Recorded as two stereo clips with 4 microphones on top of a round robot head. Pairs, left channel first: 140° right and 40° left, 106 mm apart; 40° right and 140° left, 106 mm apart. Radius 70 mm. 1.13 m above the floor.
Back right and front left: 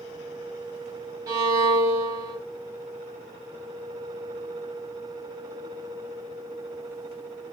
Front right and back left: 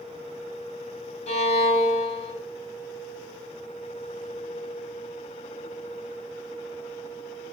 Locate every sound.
1.3 s a violin: 20° right, 1.4 m